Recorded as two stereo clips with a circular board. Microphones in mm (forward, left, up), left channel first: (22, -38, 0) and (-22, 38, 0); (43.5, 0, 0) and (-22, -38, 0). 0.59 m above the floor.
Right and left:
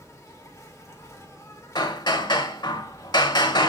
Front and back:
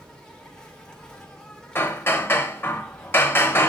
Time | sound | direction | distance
0.0 | an insect | 45° right | 1.3 m
1.8 | hammering | 30° right | 1.0 m